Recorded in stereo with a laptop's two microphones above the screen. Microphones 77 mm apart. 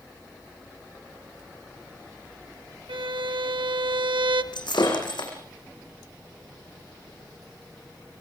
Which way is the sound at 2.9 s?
80° right.